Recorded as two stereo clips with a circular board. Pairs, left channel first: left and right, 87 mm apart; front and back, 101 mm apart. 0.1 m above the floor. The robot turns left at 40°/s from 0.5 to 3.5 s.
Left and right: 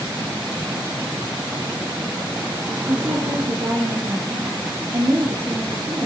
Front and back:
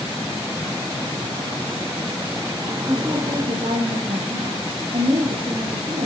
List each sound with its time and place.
2.9 s a woman speaking: 120° right, 4 m; by 6.1 s 145° right, 4 m